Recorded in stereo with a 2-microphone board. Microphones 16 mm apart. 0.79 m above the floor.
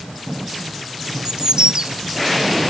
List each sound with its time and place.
1.2 s a bird: 55° right (ahead or behind)